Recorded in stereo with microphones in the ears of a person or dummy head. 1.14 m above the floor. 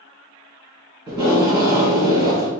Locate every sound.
1.1 s tape being pulled: 20° right (ahead or behind), 2.5 m